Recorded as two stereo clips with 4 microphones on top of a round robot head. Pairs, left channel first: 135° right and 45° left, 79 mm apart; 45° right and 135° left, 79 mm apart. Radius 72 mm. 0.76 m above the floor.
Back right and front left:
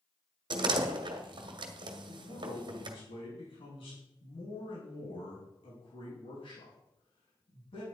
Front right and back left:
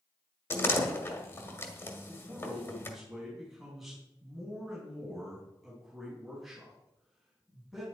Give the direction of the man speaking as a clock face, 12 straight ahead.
5 o'clock.